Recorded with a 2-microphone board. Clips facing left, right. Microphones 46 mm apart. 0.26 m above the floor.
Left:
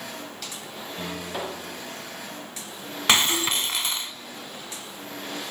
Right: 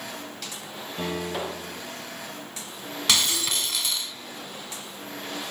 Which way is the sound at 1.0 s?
25° right (ahead or behind).